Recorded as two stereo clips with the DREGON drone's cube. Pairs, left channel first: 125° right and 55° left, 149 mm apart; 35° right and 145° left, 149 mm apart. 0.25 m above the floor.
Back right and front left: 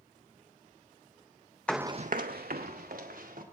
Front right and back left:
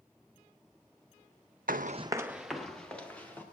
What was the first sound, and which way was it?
Running footsteps, 155° left.